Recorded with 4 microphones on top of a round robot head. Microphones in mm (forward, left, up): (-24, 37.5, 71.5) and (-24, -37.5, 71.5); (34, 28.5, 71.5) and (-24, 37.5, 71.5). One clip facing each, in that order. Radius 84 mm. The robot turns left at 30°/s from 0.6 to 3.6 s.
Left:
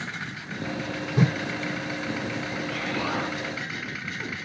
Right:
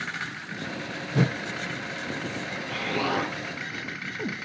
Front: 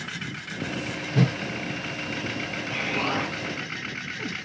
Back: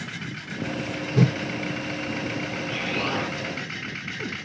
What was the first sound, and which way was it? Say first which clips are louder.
A whoosh: left 1 dB, back 2 dB; 65° right.